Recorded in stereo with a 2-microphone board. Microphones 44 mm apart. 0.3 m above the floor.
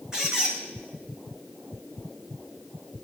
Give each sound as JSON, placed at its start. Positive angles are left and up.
{"t": 0.1, "sound": "a squeak", "side_deg": -15, "distance_m": 3.0}